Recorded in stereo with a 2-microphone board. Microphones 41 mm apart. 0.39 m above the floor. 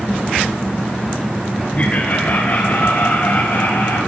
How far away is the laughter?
About 1.4 m.